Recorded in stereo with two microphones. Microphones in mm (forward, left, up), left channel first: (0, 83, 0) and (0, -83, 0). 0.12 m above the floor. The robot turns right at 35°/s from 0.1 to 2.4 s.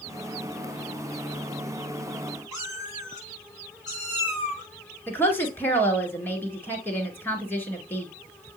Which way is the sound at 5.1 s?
10° left (ahead or behind).